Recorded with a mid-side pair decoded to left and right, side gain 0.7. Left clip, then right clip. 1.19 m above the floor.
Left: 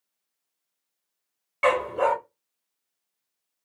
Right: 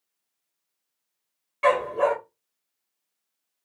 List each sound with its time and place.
1.6 s a dog barking: 30° left, 1.8 m